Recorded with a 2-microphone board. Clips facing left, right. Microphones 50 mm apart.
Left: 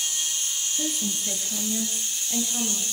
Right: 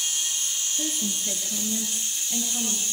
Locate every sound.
0.8 s a woman speaking: centre (ahead or behind), 5.5 m; by 2.8 s 15° left (ahead or behind), 6 m